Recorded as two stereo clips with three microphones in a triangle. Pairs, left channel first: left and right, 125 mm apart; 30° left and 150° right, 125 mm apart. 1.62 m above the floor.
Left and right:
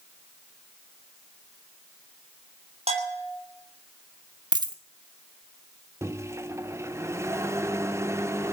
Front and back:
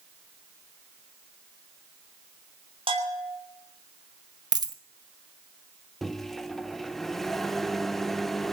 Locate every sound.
2.9 s a bell: 115° right, 3.5 m
4.5 s a dropped coin: 115° right, 1.1 m
6.0 s a microwave: 60° right, 0.7 m